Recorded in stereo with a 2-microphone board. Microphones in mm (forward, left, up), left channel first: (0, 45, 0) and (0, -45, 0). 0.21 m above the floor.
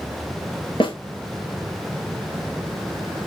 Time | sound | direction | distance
0.8 | a snare drum | 65° left (ahead or behind) | 1.7 m